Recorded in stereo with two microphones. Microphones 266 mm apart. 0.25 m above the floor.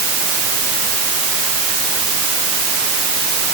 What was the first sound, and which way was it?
Only background noise.